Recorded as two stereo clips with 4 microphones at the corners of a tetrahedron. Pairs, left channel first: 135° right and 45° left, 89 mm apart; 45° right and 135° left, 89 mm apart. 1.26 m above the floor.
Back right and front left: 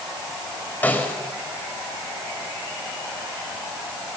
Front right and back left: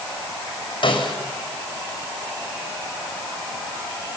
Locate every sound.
0.8 s a snare drum: 65° right, 4.5 m